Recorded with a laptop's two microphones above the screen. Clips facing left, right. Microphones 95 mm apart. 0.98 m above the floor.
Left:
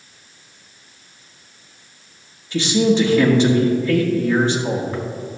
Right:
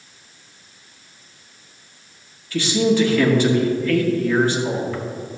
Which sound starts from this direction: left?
A man speaking, at 2.5 s.